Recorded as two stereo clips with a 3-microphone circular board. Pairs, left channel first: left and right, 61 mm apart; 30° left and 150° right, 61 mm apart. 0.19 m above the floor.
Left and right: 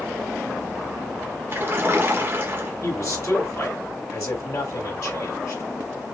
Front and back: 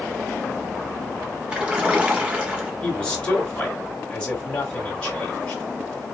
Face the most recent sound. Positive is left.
turn(degrees=100)